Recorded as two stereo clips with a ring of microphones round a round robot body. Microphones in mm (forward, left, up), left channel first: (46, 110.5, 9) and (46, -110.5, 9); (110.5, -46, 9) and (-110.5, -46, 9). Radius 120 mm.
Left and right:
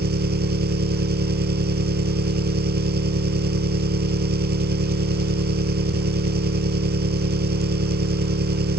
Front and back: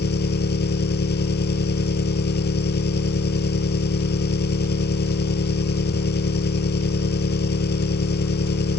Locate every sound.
0.0 s an engine running: 45° right